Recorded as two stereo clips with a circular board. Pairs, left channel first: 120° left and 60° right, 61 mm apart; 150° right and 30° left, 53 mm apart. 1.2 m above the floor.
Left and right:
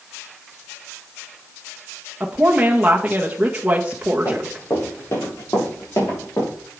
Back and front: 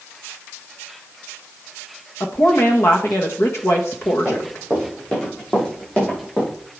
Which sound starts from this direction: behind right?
A woman speaking, at 2.2 s.